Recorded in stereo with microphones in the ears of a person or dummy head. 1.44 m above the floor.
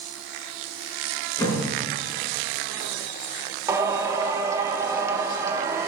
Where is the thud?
15° left (ahead or behind), 4.5 m.